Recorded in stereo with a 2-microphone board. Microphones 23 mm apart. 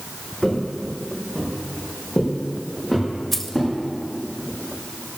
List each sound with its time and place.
0.4 s footsteps: 20° left (ahead or behind), 5 m; by 3.7 s 5° left (ahead or behind), 9 m
3.3 s keys jangling: 15° left (ahead or behind), 1.2 m